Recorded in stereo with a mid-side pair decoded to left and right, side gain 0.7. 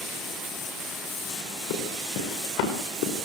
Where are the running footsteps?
70° left, 8.5 m.